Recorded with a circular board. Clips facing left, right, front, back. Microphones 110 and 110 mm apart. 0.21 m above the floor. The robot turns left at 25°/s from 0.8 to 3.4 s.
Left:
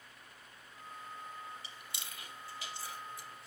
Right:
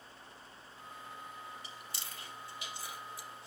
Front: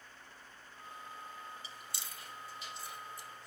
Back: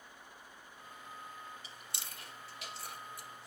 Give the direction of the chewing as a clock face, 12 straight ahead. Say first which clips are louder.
Right 2 dB, front 1 dB; 5 o'clock.